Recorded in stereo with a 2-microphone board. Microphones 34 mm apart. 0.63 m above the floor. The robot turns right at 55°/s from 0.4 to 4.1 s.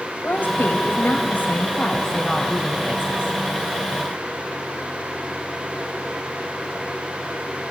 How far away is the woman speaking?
About 2.5 m.